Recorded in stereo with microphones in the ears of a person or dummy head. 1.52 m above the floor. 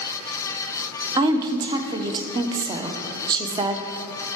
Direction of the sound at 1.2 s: 25° right (ahead or behind).